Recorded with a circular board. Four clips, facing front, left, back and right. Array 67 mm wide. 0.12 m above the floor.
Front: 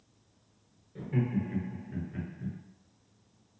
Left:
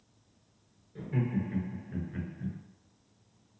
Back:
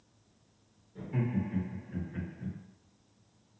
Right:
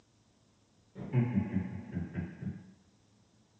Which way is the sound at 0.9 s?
45° left.